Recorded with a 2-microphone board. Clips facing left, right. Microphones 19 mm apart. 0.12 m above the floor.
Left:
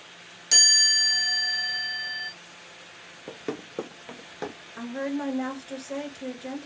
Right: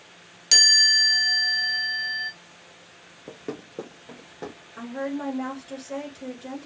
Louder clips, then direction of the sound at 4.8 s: Even; 10° left (ahead or behind).